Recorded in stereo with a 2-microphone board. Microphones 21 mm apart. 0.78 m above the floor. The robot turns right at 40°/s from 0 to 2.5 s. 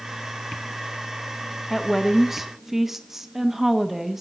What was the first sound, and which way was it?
A woman speaking, 175° left.